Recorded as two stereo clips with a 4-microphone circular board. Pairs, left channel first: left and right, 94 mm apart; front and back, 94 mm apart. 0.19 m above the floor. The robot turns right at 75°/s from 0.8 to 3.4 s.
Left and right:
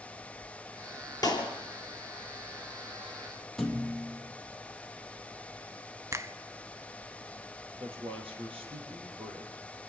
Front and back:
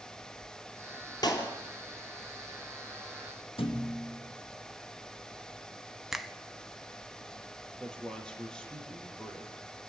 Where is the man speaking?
80° right, 4.5 m.